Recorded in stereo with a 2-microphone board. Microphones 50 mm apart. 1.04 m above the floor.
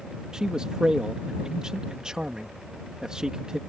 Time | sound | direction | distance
0.3 | a man speaking | 15° right (ahead or behind) | ?